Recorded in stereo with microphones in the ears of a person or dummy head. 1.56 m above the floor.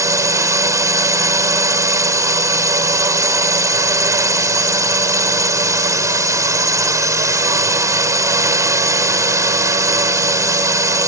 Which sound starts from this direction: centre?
A drone, at 0.0 s.